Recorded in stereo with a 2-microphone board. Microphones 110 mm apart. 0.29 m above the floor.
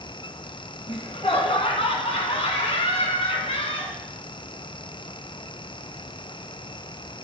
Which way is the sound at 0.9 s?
60° left (ahead or behind).